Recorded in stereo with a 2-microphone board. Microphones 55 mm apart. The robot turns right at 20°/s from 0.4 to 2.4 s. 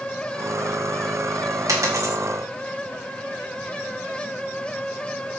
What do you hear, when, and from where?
1.7 s a dropped coin: 65° right (ahead or behind), 1.2 m; by 2.1 s 55° right (ahead or behind), 1.2 m